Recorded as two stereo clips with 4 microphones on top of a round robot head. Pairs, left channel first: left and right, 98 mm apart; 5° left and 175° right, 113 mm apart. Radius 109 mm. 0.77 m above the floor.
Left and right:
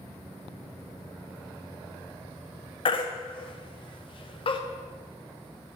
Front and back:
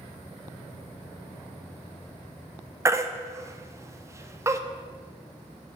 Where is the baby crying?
120° left, 1.0 m.